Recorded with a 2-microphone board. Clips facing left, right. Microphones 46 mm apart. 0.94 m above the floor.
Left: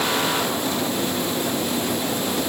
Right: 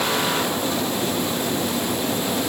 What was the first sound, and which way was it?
Only background noise.